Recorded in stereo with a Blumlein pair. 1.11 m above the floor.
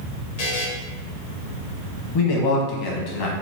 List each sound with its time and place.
0.4 s a buzzer: 50° left, 0.8 m
2.1 s a man speaking: 45° left, 0.9 m